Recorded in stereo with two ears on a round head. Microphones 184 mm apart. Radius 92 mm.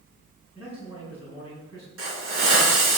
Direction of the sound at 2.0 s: 80° right.